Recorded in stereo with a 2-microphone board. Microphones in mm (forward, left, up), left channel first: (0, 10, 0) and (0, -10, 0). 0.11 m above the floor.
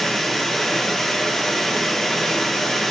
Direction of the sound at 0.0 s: 25° left (ahead or behind).